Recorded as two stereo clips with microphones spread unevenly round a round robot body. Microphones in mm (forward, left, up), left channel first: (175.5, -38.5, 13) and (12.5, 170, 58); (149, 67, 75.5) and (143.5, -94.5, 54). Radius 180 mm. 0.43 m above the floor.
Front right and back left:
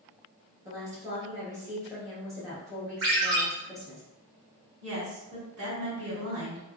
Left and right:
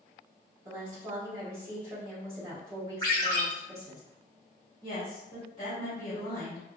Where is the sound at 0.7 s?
145° right, 1.3 m.